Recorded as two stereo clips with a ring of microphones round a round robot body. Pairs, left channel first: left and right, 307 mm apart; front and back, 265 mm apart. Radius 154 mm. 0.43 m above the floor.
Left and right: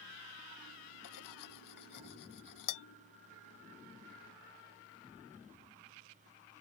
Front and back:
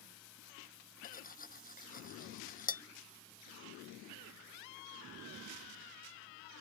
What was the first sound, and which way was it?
Cutlery clinking, 60° left.